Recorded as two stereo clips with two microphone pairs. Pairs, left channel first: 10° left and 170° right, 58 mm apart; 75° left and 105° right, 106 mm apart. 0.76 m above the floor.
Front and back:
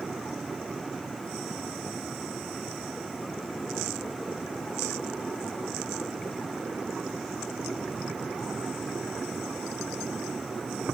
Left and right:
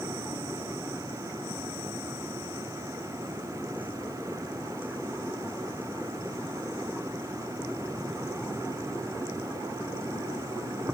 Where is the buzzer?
No buzzer in this recording.